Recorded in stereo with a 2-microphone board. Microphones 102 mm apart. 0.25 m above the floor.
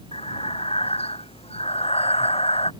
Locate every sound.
0.1 s breathing: 75° left (ahead or behind)